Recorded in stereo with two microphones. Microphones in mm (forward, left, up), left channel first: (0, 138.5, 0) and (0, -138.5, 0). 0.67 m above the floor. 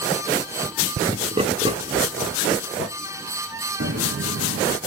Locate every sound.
1.1 s laughter: 20° right (ahead or behind), 0.9 m; by 2.9 s 10° right (ahead or behind), 2.5 m
3.8 s footsteps: 50° right (ahead or behind), 1.4 m